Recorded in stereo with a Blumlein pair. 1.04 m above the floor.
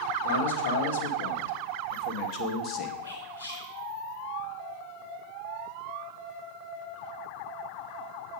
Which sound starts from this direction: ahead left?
Whispering, at 3.0 s.